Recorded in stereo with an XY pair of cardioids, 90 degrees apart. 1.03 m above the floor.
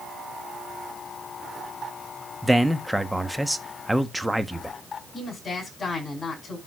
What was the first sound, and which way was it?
A man speaking, 5° right.